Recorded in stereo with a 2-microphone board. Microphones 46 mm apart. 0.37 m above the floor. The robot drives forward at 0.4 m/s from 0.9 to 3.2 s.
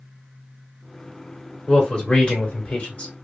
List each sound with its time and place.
1.7 s a man speaking: 20° left (ahead or behind), 1.2 m; by 3.1 s 25° left (ahead or behind), 0.9 m